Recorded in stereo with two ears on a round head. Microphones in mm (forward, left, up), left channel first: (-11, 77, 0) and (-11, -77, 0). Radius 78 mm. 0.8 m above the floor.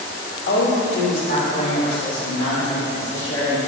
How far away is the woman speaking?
About 2 m.